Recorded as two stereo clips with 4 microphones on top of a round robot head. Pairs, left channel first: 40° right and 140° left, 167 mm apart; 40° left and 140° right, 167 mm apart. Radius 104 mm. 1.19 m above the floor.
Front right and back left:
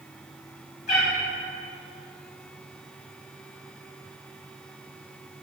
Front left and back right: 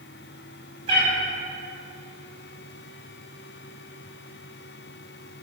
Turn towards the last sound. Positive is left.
turn(degrees=-85)